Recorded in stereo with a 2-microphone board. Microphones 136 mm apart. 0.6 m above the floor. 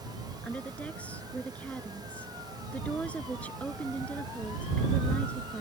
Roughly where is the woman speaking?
Centre.